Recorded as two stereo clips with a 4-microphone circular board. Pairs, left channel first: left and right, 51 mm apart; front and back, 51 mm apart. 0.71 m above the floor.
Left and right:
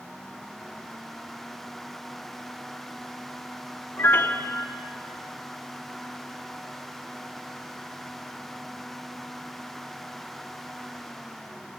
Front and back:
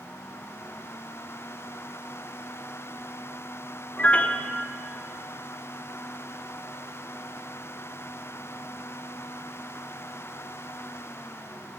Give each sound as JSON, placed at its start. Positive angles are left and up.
{"t": 4.0, "sound": "a piano", "azimuth_deg": 60, "distance_m": 0.9}